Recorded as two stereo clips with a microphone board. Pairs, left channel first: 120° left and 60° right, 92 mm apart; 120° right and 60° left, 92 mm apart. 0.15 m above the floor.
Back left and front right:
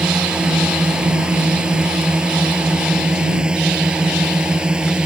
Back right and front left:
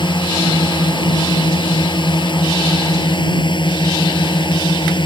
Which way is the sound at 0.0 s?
140° right.